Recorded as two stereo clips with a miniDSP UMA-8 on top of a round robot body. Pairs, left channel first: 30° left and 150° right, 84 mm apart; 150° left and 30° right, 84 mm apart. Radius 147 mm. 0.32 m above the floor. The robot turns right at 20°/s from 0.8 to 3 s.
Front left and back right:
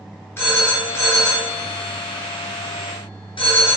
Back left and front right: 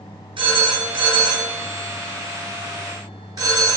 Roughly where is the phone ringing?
Ahead right.